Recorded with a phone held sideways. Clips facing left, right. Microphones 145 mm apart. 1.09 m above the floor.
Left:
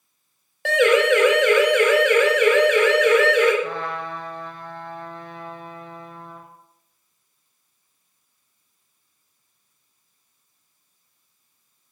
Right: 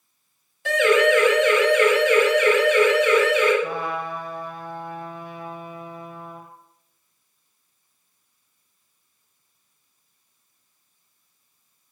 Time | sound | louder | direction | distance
0.7 | a siren | left 1 dB | 75° left (ahead or behind) | 6.5 m
3.6 | a trumpet | right 1 dB | 10° right (ahead or behind) | 7 m